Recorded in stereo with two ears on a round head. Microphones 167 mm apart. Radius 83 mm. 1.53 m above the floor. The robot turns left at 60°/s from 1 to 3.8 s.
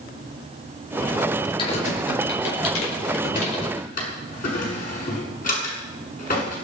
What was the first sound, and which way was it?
Typing on a keyboard, 25° left (ahead or behind).